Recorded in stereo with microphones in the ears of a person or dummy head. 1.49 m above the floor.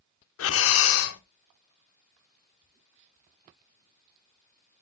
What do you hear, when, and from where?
0.4 s breathing: 80° left, 1.1 m